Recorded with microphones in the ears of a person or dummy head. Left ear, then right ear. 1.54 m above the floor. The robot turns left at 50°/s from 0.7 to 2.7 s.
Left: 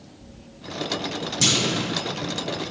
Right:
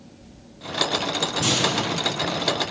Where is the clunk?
65° left (ahead or behind), 1.2 m; by 1.8 s 45° left (ahead or behind), 1.2 m.